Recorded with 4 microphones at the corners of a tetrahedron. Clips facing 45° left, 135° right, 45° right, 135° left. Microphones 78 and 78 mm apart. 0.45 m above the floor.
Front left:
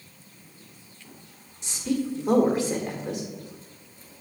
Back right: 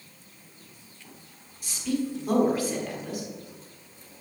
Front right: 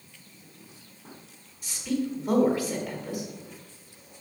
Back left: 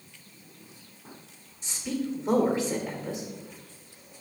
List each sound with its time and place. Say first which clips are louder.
1.6 s a woman speaking: front left 1 dB, front right 2 dB; 90° left, 1.3 m